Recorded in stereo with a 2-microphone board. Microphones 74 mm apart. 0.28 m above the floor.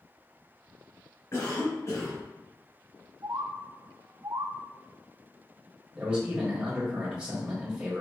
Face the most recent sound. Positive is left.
turn(degrees=-15)  # may be behind; listen again after turning